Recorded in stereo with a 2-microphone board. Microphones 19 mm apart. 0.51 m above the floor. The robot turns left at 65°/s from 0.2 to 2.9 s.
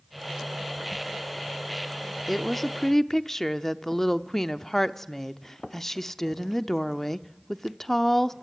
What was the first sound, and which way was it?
A woman speaking, 5° right (ahead or behind).